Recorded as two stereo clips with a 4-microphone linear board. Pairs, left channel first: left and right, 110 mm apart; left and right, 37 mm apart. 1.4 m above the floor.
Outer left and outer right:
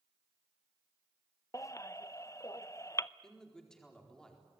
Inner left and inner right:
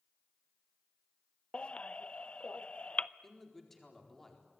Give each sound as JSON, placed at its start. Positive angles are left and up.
{"t": 1.5, "sound": "a baby crying", "side_deg": 30, "distance_m": 0.5}
{"t": 3.2, "sound": "a man speaking", "side_deg": 5, "distance_m": 4.5}